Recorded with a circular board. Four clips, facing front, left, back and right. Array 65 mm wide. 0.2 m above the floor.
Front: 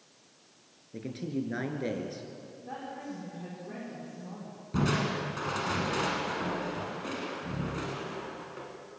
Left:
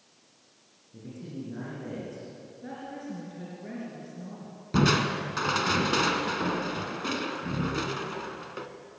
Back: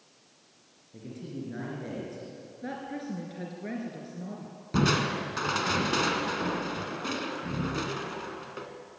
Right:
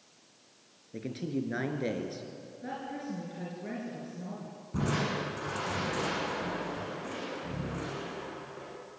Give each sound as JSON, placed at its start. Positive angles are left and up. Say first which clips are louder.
{"t": 0.9, "sound": "a man speaking", "louder": "right 6 dB, front 5 dB", "azimuth_deg": -60, "distance_m": 3.5}
{"t": 2.6, "sound": "a woman speaking", "louder": "right 1 dB, back 4 dB", "azimuth_deg": -170, "distance_m": 3.5}
{"t": 4.7, "sound": "crushing", "louder": "left 7 dB, back 3 dB", "azimuth_deg": 115, "distance_m": 1.8}